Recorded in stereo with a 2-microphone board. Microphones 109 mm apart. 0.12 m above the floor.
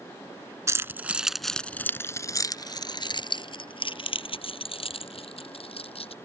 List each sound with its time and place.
0.7 s keys jangling: 25° right (ahead or behind); by 6.2 s 60° left (ahead or behind)